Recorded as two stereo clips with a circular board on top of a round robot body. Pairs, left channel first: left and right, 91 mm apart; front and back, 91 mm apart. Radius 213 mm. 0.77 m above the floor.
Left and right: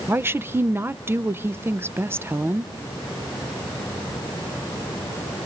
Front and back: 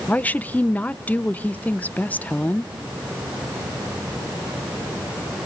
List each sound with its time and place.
0.1 s a woman speaking: 55° right, 0.9 m